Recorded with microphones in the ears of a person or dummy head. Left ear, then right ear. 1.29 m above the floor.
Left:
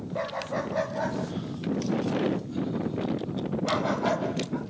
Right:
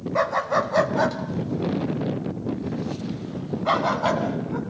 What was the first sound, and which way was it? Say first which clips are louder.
A dog barking: right 9 dB; 60° right (ahead or behind).